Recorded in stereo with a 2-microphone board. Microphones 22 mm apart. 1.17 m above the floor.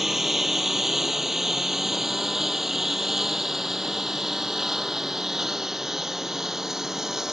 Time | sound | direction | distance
0.0 | a lawn mower | 20° right (ahead or behind) | ?